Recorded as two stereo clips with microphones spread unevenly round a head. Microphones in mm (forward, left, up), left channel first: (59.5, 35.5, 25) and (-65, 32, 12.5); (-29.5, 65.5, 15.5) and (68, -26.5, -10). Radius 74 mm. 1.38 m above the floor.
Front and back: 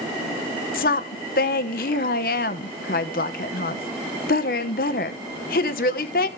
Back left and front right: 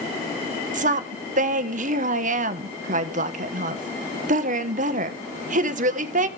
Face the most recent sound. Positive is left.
turn(degrees=-20)